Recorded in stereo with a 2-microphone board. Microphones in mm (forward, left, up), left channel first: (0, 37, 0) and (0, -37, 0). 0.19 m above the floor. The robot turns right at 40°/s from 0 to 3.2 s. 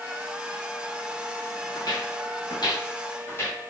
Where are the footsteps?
65° left (ahead or behind), 1.3 m; by 3.6 s 30° left (ahead or behind), 2 m.